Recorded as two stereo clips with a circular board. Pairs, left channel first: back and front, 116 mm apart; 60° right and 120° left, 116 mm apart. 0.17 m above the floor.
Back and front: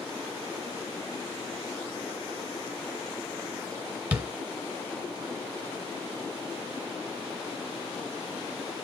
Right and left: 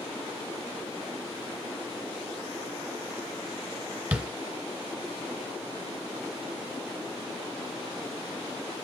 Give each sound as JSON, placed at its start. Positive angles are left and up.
{"t": 4.1, "sound": "tapping", "azimuth_deg": 60, "distance_m": 1.7}